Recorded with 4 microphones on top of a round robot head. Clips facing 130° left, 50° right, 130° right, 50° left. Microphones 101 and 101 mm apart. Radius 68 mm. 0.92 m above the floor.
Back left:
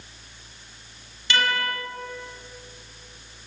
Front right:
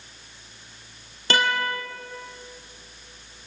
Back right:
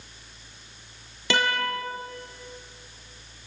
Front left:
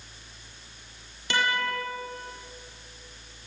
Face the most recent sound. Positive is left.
turn(degrees=-110)